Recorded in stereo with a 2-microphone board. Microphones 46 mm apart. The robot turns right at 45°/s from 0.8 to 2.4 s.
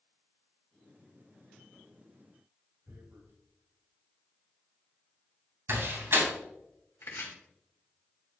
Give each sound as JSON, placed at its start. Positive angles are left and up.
{"t": 2.9, "sound": "tearing paper", "side_deg": -65, "distance_m": 3.5}
{"t": 5.7, "sound": "a door slam", "side_deg": -65, "distance_m": 3.0}
{"t": 7.0, "sound": "chopping", "side_deg": 70, "distance_m": 2.0}